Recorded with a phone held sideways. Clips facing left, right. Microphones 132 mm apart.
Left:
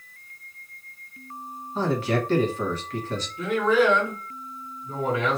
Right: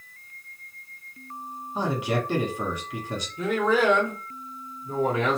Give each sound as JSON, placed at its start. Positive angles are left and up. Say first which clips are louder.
{"t": 1.8, "sound": "a man speaking", "louder": "left 2 dB", "side_deg": -15, "distance_m": 1.4}
{"t": 3.4, "sound": "a man speaking", "louder": "left 2 dB", "side_deg": -30, "distance_m": 1.3}